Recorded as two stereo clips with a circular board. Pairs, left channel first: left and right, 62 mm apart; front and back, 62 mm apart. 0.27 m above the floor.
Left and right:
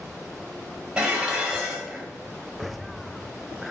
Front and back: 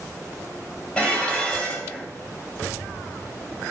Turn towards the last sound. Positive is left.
turn(degrees=-40)